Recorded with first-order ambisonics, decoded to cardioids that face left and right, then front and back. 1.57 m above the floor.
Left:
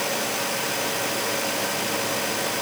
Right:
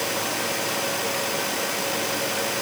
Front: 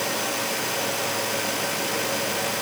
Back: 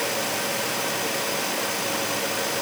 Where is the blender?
I don't hear a blender.